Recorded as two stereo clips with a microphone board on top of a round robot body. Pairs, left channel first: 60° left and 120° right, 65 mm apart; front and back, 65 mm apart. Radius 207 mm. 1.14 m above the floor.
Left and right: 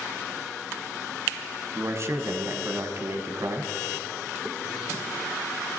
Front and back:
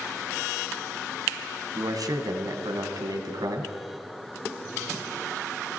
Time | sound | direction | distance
1.8 | a man speaking | 165° right | 1.7 m